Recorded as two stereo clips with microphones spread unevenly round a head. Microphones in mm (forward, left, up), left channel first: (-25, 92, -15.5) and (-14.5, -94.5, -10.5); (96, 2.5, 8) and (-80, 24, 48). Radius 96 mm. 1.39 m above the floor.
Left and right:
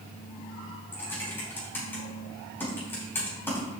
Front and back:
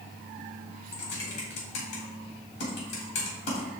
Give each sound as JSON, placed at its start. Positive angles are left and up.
{"t": 0.9, "sound": "typing on a keyboard", "azimuth_deg": 15, "distance_m": 4.5}